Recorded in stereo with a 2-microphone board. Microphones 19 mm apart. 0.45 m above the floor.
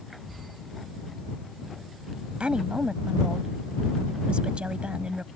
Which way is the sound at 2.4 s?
70° right (ahead or behind).